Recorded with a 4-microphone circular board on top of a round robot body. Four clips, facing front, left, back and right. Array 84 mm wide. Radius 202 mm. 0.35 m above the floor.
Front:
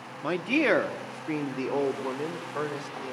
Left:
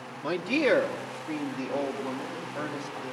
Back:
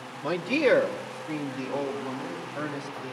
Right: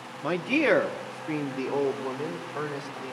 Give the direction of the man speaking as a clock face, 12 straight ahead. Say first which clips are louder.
Right 1 dB, back 1 dB; 2 o'clock.